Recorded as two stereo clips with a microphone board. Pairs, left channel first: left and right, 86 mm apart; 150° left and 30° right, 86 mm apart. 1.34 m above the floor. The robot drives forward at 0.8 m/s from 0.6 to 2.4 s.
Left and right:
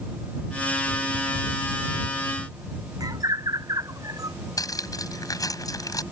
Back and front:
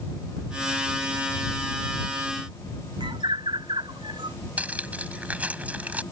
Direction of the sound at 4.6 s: 45° left.